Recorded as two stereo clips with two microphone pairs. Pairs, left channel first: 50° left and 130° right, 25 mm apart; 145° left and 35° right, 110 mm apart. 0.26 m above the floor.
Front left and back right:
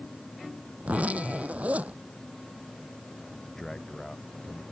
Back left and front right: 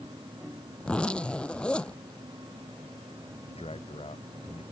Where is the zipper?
140° right.